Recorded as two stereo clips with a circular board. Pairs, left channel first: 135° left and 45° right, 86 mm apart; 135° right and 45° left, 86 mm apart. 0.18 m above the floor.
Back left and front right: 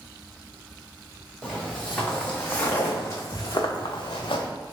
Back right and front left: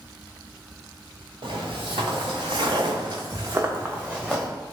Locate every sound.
1.4 s footsteps: 45° left, 1.4 m; by 4.5 s 135° left, 0.8 m